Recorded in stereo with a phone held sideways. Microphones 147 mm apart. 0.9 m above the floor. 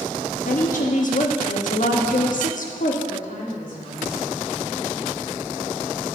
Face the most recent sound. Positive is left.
turn(degrees=75)  # may be behind; listen again after turning